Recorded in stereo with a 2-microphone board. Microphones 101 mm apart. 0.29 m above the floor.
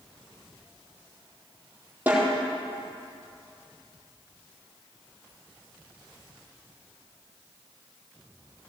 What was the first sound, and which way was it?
A snare drum, 20° right (ahead or behind).